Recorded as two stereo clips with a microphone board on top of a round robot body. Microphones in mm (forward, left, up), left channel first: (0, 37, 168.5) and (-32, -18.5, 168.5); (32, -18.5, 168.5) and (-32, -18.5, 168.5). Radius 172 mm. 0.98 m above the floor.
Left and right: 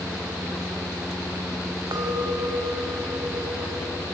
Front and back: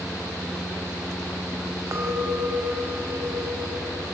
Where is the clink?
140° right, 4 m.